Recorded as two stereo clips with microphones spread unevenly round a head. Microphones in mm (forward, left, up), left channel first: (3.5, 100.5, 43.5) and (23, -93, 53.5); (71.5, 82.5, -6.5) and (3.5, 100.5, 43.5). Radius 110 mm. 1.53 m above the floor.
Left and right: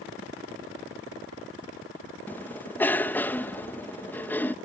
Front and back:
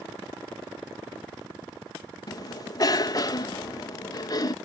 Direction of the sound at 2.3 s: 15° left.